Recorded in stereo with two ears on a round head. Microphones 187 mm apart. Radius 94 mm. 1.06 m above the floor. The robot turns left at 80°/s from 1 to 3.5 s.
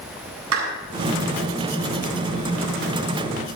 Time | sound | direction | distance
0.5 | a clap | 85° right | 9 m